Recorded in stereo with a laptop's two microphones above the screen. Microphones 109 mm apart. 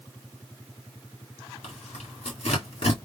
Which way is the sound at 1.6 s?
80° left.